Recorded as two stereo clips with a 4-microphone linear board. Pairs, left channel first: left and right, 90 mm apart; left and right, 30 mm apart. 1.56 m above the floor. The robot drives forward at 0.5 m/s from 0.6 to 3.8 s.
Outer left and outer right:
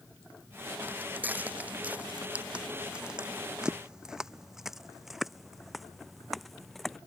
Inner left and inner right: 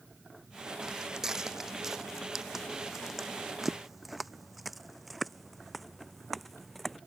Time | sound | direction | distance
0.8 | footsteps | 20° right (ahead or behind) | ?